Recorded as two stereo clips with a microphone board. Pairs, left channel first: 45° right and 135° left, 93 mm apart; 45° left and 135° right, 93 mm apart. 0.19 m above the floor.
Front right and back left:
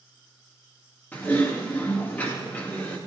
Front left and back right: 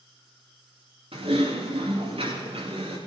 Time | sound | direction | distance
1.1 | typing on a keyboard | 120° right | 7.5 m